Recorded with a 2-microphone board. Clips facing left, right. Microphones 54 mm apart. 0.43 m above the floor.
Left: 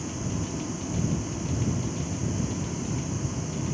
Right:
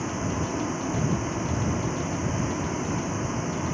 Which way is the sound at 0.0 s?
40° right (ahead or behind).